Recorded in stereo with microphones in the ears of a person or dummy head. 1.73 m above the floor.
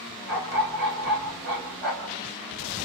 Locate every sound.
0.3 s a dog barking: 55° right (ahead or behind), 3 m